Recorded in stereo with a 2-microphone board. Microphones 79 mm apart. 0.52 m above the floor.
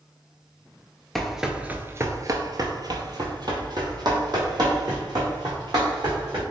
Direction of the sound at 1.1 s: 5° left (ahead or behind).